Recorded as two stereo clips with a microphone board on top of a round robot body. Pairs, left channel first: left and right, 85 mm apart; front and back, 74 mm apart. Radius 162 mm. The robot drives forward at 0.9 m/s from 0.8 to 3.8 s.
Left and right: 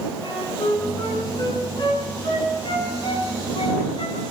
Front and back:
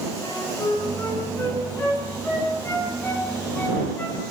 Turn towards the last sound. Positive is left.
turn(degrees=65)